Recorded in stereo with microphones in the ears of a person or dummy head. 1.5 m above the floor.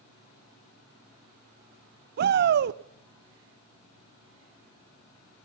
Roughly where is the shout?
Right.